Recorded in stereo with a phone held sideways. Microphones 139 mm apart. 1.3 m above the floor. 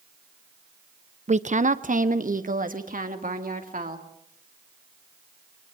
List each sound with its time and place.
1.3 s a woman speaking: 55° right (ahead or behind), 0.7 m; by 4.0 s 80° right, 3 m